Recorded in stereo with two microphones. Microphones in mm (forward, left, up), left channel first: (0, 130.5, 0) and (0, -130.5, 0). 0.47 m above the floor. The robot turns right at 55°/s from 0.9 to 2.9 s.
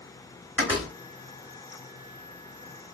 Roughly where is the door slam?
Centre.